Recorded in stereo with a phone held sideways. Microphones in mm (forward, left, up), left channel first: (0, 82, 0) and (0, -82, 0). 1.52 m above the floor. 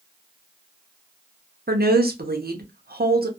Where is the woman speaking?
70° right (ahead or behind), 0.8 m.